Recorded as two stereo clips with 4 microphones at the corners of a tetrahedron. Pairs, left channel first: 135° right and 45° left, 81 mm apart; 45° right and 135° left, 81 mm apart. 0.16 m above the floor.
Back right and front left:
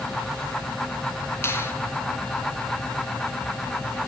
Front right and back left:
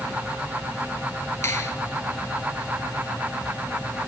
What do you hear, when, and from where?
1.4 s a finger snap: 80° right, 2.0 m